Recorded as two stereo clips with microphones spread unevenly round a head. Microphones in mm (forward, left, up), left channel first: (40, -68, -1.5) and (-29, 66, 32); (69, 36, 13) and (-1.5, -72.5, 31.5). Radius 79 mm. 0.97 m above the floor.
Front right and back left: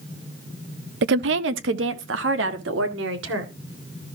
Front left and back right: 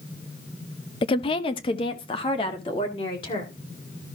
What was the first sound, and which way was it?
A woman speaking, 105° left.